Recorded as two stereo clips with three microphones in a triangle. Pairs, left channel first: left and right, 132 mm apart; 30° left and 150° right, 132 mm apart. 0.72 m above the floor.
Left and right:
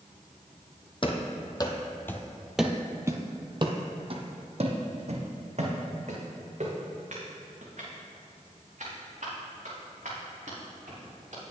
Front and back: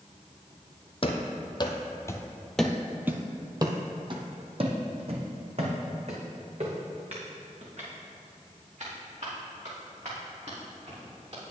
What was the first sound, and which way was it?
Running footsteps, 55° left.